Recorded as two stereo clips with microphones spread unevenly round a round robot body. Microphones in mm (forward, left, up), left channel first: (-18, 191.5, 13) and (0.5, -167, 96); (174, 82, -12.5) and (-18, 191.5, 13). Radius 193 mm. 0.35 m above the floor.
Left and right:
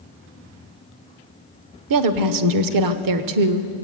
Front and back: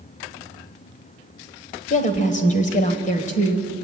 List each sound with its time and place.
1.9 s a woman speaking: 65° right, 1.3 m